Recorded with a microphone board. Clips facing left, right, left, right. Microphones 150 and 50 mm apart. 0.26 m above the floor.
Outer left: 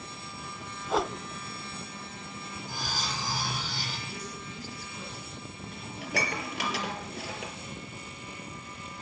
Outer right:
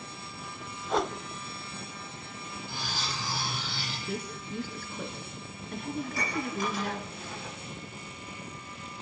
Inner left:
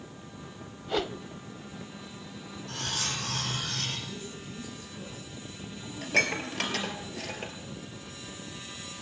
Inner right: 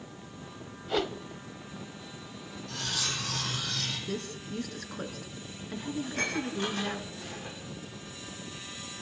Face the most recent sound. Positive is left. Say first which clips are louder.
# even, inner left 7 dB
turn(degrees=80)